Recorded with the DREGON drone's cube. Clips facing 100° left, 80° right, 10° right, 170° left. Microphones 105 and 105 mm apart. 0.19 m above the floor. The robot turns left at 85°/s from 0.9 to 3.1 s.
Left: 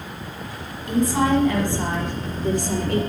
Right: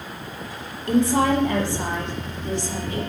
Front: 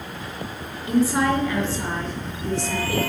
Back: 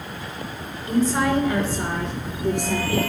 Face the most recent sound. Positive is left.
turn(degrees=95)